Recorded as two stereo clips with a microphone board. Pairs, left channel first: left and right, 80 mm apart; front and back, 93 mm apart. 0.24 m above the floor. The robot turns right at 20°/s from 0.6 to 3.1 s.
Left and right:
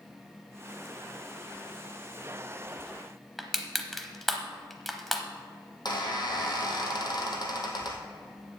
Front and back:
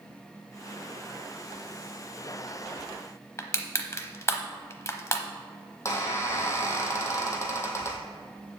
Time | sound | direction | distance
3.4 | crushing | straight ahead | 0.8 m
5.8 | a squeak | 60° left | 1.8 m